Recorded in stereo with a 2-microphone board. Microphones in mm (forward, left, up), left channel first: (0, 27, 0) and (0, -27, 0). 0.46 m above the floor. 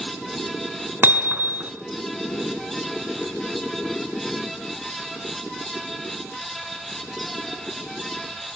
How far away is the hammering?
About 4.5 m.